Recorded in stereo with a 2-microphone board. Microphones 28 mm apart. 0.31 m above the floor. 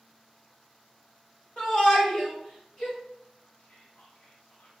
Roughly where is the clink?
I don't hear a clink.